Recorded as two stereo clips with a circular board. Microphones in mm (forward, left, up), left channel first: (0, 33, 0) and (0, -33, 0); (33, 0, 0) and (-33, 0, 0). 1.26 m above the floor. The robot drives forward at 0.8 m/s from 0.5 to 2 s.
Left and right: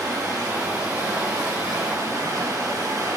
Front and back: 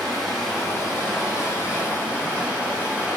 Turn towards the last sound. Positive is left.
turn(degrees=-110)